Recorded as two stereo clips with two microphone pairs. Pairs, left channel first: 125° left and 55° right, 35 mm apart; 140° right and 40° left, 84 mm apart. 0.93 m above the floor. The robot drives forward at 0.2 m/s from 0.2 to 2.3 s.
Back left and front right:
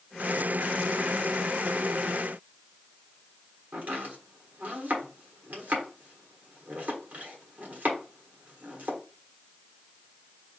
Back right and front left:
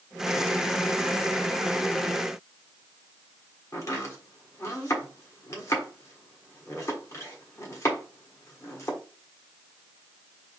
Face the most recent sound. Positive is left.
turn(degrees=-90)